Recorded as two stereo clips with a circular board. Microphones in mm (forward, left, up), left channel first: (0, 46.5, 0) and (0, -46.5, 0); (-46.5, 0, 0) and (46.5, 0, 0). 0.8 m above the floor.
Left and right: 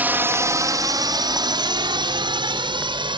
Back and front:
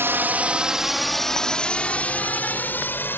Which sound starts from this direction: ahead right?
A drone, at 0.0 s.